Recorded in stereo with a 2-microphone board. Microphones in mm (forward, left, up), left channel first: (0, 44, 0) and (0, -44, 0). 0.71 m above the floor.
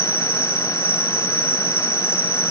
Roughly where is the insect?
Right.